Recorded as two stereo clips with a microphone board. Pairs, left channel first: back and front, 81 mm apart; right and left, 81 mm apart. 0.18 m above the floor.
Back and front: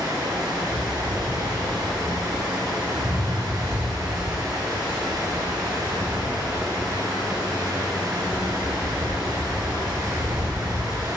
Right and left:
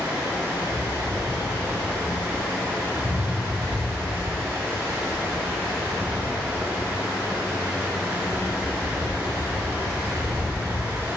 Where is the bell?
No bell in this recording.